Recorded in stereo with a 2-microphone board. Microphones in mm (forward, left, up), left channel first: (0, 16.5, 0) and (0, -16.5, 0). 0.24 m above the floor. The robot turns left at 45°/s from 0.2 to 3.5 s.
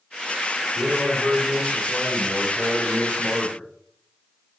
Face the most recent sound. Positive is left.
turn(degrees=115)